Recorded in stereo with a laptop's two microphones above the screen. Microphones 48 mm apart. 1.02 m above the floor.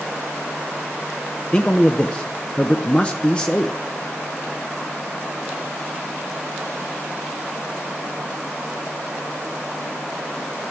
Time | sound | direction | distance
1.5 | a man speaking | 20° left (ahead or behind) | 0.6 m